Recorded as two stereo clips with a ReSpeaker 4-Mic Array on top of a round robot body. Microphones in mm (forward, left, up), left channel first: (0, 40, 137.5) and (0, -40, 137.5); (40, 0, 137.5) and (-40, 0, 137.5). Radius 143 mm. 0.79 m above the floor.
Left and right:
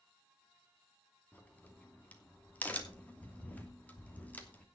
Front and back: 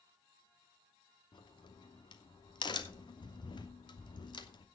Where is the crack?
20° left, 3 m.